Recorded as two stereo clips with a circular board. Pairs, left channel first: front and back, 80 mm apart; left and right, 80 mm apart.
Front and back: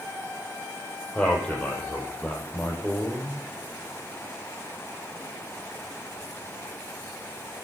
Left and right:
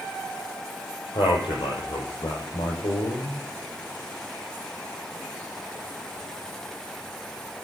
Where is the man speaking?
80° left, 5 m.